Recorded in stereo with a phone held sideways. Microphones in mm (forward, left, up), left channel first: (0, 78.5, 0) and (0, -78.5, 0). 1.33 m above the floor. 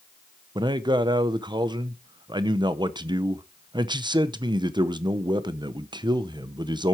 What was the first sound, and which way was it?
A man speaking, 25° right (ahead or behind).